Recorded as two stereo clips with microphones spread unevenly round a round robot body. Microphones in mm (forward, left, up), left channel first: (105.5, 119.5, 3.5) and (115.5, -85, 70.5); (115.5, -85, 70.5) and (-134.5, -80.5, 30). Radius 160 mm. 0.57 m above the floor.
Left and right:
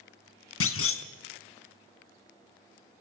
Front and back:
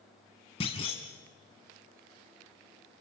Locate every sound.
0.6 s a clunk: 70° left, 1.1 m